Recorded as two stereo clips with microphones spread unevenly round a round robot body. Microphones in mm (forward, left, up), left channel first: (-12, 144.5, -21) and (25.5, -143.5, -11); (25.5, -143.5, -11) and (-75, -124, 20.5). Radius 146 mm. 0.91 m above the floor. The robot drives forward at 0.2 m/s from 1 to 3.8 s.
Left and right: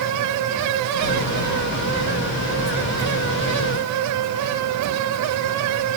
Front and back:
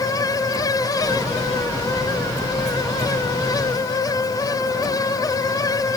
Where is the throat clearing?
No throat clearing in this recording.